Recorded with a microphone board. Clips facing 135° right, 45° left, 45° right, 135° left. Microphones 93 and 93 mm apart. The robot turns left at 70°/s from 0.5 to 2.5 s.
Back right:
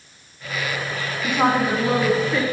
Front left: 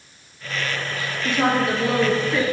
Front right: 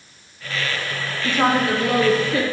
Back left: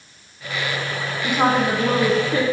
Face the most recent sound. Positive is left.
turn(degrees=125)